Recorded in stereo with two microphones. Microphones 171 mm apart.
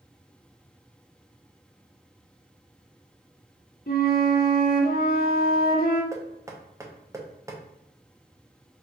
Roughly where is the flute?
Left.